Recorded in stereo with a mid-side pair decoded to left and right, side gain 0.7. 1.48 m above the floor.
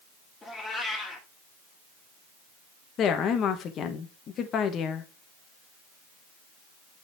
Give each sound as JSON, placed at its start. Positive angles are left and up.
{"t": 0.4, "sound": "a cat meowing", "azimuth_deg": 20, "distance_m": 2.5}
{"t": 3.0, "sound": "a woman speaking", "azimuth_deg": 45, "distance_m": 1.2}